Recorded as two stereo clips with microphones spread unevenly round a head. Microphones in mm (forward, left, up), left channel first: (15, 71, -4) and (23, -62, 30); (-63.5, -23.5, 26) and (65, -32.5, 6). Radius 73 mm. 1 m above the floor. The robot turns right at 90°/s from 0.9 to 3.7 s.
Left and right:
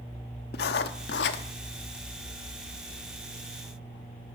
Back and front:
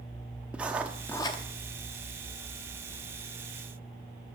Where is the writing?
80° left, 0.8 m; by 1.4 s 130° left, 0.8 m.